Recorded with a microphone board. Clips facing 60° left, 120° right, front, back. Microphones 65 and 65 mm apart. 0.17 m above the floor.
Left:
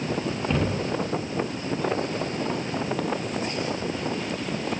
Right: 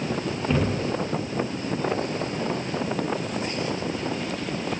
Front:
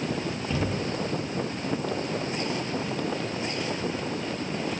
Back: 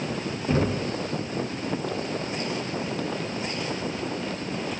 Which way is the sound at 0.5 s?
155° left.